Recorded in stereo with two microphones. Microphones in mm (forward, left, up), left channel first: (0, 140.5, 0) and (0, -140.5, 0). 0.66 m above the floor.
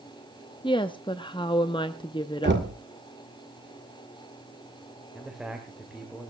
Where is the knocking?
40° right (ahead or behind), 1.6 m.